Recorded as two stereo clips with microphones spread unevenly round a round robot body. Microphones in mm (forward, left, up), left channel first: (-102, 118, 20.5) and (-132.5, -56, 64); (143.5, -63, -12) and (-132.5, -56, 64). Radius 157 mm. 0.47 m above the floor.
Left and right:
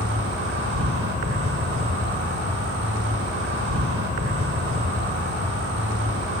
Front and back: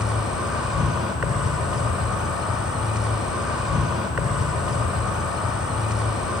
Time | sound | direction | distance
0.0 | an insect | 85° right | 1.5 m